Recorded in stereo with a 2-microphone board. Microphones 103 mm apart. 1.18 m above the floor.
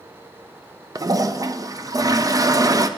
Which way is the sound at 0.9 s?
35° right (ahead or behind).